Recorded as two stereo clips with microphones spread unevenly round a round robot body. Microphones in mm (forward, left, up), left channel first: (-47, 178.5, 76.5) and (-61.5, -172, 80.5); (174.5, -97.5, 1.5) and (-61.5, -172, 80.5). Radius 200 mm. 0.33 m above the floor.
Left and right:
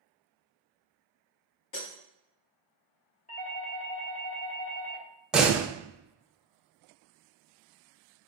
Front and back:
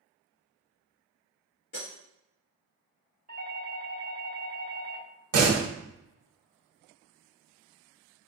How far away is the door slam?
About 0.9 m.